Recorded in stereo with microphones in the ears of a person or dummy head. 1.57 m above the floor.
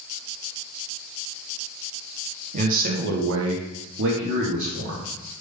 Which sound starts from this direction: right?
A man speaking, at 2.5 s.